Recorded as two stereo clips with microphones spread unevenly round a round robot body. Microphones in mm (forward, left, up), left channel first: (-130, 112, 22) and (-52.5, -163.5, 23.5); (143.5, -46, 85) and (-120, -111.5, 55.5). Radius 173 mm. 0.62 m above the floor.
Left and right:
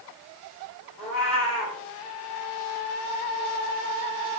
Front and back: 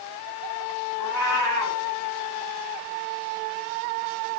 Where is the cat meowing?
170° right, 5 m.